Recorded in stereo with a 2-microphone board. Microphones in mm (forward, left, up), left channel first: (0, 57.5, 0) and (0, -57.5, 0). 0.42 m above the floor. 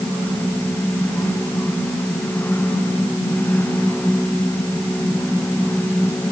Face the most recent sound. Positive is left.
No sound to turn to.